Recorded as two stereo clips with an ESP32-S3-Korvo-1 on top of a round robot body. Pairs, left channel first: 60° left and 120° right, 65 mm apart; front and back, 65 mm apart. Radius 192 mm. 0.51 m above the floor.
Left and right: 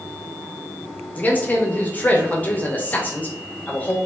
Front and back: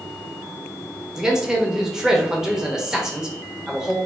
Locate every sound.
1.1 s a man speaking: 105° left, 1.1 m